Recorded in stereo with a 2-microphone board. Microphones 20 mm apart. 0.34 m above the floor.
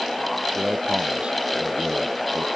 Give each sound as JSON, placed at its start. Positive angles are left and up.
{"t": 0.6, "sound": "a man speaking", "side_deg": -60}